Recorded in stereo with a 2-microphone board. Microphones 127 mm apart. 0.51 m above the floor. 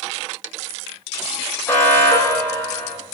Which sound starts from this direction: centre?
An alarm, at 1.7 s.